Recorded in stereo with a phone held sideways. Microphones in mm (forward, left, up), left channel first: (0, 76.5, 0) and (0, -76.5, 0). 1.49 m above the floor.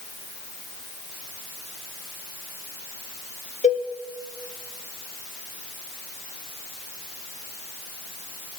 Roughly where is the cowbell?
Left.